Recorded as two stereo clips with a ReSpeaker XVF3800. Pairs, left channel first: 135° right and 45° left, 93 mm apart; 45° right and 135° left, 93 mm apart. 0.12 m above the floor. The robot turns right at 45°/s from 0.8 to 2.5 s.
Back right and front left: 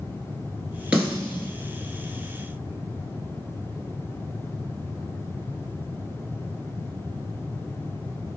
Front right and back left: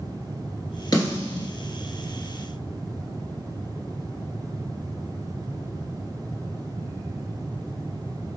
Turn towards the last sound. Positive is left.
turn(degrees=45)